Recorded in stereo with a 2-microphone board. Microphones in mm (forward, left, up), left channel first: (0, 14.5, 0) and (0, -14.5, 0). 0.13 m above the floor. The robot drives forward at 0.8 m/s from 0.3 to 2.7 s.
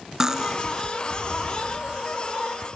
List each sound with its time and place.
0.2 s cutlery clinking: 15° right (ahead or behind), 1.0 m